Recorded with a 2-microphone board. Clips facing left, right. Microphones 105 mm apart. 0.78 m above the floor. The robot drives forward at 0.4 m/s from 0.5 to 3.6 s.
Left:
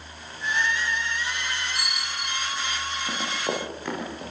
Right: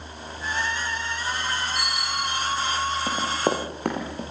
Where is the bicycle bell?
Centre (ahead or behind), 5.5 m.